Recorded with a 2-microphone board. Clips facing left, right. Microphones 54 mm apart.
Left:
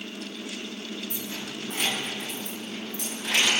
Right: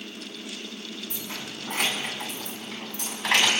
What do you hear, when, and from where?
1.1 s keys jangling: 65° right (ahead or behind), 7 m; by 3.5 s 80° right, 5.5 m